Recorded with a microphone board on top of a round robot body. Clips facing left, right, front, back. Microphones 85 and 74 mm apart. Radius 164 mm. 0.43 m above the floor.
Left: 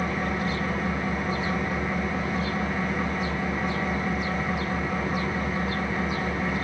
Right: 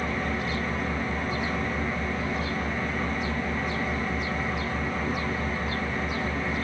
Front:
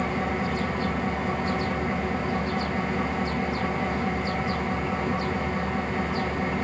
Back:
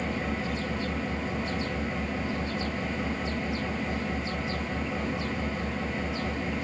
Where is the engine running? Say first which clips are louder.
Left 2 dB, front 4 dB; 10° left, 5 m.